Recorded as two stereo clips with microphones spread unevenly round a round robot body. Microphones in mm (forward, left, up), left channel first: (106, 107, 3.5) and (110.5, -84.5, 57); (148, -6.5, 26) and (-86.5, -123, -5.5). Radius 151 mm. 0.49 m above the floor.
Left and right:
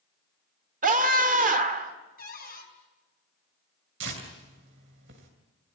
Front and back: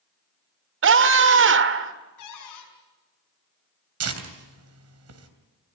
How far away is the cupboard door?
About 5.5 m.